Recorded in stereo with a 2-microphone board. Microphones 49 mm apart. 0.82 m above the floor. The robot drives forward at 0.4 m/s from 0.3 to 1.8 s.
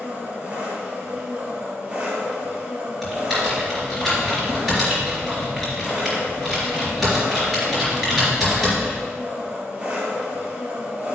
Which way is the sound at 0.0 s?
30° right (ahead or behind).